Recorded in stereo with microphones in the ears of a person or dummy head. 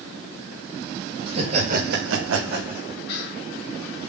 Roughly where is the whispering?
Left.